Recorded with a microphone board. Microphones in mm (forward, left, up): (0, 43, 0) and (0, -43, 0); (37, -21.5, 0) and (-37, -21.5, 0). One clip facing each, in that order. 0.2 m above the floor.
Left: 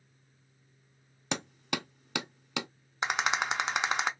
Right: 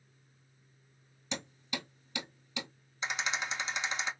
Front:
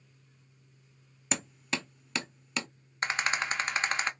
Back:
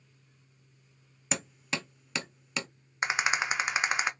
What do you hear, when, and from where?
1.3 s hammering: 90° left, 0.6 m
3.0 s a rattle: 105° left, 0.5 m